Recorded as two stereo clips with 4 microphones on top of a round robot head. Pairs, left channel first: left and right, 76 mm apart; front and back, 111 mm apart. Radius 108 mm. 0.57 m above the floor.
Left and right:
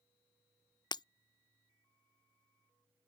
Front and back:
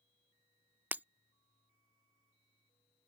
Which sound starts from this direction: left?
Breaking glass, at 0.9 s.